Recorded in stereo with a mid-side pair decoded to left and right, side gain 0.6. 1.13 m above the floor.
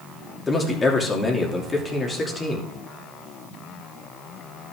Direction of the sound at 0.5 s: 20° left.